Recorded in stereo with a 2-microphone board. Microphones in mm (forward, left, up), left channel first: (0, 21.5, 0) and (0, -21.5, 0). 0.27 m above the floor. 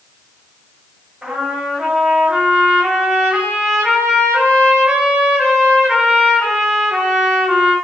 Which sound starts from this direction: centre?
A trumpet, at 1.2 s.